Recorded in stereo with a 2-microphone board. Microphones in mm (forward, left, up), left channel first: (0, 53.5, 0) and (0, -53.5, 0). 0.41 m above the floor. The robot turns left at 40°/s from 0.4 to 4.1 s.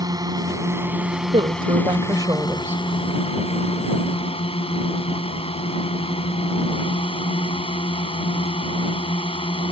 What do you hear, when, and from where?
0.0 s a drone: 140° right; by 9.7 s 70° left
1.3 s a woman speaking: 95° right; by 2.8 s 155° right